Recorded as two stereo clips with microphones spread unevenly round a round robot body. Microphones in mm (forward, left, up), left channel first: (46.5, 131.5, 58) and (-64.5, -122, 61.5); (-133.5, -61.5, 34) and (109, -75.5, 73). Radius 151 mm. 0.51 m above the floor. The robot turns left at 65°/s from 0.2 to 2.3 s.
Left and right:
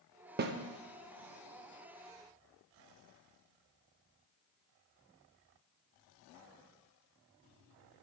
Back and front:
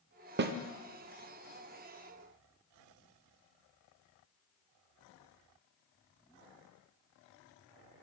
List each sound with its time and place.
0.4 s a snare drum: 55° right, 0.5 m; by 0.6 s 65° right, 0.5 m